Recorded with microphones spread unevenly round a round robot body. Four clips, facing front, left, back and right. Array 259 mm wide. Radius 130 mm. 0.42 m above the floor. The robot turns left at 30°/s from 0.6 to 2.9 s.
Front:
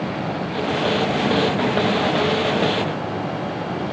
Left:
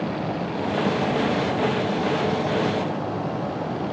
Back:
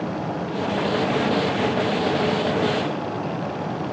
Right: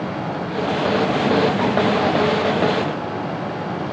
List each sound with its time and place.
Only background noise.